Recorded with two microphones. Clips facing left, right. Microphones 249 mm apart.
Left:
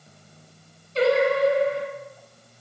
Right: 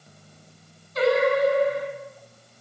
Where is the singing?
35° left (ahead or behind), 1.8 m.